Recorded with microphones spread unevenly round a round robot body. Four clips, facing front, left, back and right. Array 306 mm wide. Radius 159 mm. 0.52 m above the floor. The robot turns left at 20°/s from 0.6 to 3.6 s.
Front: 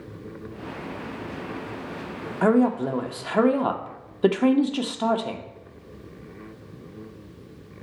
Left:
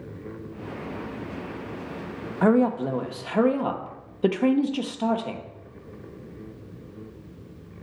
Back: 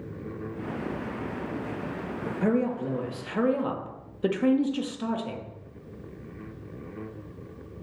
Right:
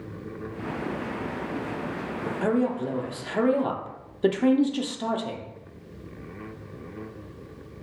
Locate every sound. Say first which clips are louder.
2.4 s a woman speaking: left 5 dB, front 7 dB; 30° left, 1.0 m; by 5.5 s 5° left, 1.0 m